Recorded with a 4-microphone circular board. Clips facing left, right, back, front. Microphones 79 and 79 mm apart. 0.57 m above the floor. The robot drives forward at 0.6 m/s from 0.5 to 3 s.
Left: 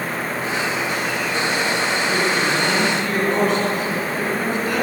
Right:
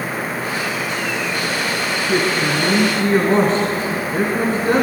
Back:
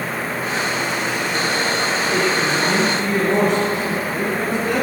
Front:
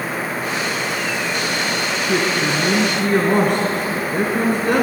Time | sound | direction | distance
2.1 | a woman speaking | 35° right | 5.5 m